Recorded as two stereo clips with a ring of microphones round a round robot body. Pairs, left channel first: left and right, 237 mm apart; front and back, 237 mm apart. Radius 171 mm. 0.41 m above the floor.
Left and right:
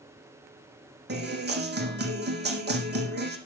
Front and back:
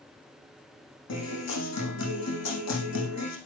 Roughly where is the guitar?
Ahead right.